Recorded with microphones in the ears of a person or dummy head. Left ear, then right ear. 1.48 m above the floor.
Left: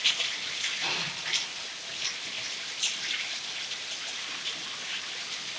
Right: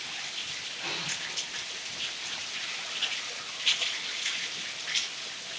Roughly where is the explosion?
Centre.